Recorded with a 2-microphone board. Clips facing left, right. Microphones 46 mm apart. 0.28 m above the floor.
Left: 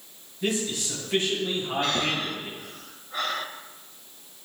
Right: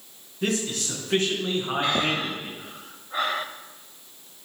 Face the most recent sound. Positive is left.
turn(degrees=-15)  # may be behind; listen again after turning